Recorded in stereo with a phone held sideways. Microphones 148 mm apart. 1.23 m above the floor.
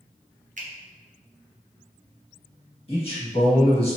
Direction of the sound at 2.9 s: 40° left (ahead or behind).